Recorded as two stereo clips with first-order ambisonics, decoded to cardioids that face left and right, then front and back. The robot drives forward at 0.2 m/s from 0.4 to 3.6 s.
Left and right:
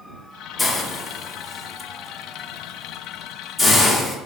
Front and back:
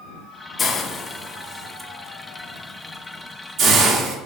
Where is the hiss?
35° left, 0.6 m; by 4.2 s 155° left, 0.7 m.